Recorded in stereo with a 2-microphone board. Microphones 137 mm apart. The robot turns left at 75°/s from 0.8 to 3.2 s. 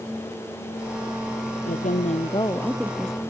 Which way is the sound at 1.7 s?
90° left.